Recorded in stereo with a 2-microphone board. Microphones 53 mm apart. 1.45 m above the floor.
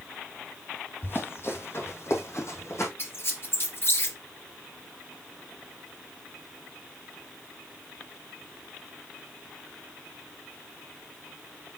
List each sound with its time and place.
1.0 s running footsteps: 45° left (ahead or behind), 2.5 m; by 2.9 s 60° left (ahead or behind), 3 m
3.0 s a squeak: 45° left (ahead or behind), 1.4 m